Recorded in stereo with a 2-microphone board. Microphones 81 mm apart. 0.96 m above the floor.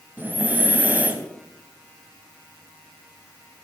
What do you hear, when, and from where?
0.2 s breathing: 20° right (ahead or behind), 0.8 m